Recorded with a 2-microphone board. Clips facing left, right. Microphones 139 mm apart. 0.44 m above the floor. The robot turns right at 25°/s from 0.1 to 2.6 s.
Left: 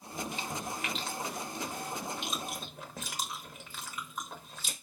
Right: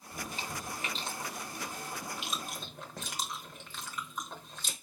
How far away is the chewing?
About 0.9 m.